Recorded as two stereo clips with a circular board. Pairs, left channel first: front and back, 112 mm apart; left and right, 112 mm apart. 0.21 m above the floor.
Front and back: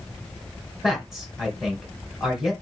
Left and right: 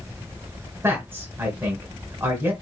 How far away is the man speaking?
About 1.3 m.